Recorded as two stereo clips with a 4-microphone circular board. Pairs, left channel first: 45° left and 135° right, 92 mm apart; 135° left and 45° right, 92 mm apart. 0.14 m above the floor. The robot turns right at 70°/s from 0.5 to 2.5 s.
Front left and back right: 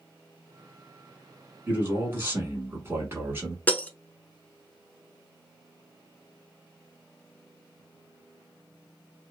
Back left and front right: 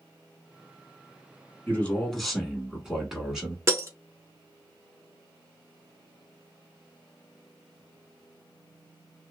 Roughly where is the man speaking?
Behind.